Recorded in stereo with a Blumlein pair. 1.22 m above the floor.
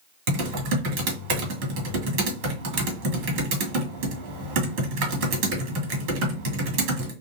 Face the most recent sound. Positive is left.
turn(degrees=-50)